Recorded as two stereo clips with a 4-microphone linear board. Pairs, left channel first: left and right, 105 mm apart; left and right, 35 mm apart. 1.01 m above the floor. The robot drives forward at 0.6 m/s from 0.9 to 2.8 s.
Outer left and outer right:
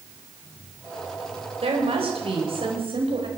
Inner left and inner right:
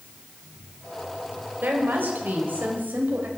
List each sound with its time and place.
1.6 s a woman speaking: 70° right (ahead or behind), 4.5 m; by 3.3 s 65° right (ahead or behind), 5 m